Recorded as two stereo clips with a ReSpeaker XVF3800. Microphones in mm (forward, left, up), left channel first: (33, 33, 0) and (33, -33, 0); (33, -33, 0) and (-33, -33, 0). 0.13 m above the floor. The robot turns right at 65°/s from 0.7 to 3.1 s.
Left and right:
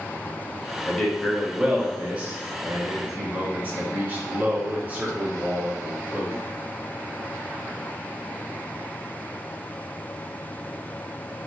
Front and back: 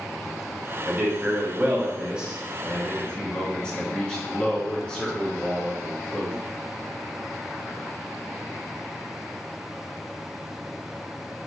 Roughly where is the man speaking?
Behind left.